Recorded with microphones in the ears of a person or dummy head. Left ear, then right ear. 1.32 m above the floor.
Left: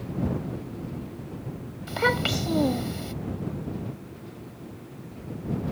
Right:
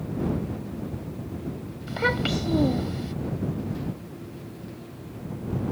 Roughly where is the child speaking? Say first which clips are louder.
Left 1 dB; left.